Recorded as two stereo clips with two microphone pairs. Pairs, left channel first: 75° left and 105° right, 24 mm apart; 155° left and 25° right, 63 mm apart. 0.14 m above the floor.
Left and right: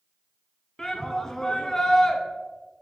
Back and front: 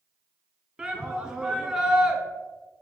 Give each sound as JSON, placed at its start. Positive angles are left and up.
{"t": 0.8, "sound": "a shout", "azimuth_deg": 35, "distance_m": 1.1}